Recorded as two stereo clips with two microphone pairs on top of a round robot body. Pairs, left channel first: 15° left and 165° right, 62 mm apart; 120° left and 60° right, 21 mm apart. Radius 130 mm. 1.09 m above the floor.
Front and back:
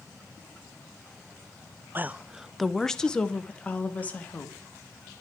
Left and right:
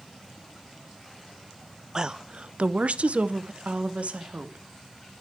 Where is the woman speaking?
110° right, 0.5 m; by 4.7 s 50° right, 1.9 m.